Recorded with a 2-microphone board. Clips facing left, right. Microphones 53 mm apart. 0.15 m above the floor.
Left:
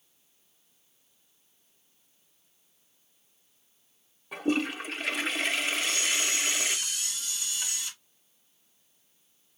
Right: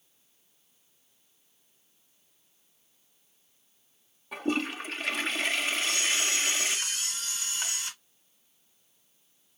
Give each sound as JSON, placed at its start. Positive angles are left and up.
{"t": 4.3, "sound": "a toilet flushing", "side_deg": 0, "distance_m": 0.7}
{"t": 5.8, "sound": "a camera shutter", "side_deg": -35, "distance_m": 1.7}